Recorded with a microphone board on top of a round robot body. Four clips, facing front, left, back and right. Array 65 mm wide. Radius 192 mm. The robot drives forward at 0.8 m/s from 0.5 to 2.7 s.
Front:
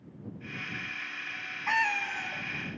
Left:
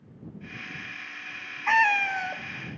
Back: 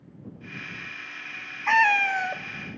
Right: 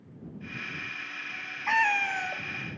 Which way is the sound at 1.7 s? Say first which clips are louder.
Left 3 dB, back 9 dB; 140° left.